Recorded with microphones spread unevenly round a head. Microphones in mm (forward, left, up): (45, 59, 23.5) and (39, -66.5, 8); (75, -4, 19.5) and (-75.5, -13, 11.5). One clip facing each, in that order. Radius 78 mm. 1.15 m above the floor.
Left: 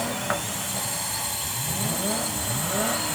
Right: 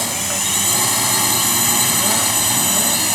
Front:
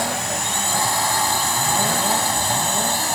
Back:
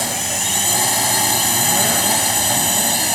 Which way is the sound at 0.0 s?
115° right.